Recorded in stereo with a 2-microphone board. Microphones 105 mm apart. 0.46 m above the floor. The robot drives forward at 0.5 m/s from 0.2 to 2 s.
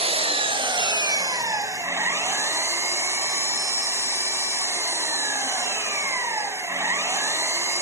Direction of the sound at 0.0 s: 65° right (ahead or behind).